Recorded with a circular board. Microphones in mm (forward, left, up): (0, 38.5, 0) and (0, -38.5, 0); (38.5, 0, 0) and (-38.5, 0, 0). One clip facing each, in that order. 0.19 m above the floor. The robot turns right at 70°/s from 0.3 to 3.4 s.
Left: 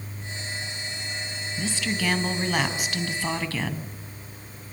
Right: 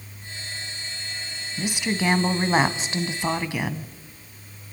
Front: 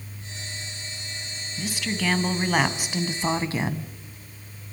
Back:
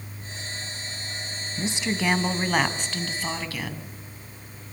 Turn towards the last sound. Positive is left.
turn(degrees=-30)